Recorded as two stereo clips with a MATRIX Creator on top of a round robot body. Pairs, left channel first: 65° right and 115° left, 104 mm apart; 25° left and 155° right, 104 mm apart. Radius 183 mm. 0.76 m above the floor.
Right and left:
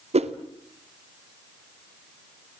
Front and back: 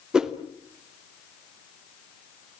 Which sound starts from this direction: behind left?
A whoosh, at 0.1 s.